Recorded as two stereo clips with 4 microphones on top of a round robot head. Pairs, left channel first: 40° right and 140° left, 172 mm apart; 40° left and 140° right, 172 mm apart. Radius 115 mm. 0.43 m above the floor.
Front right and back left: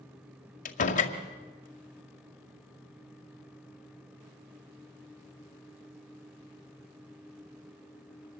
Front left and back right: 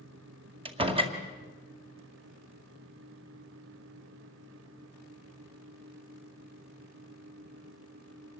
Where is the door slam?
80° right, 2 m.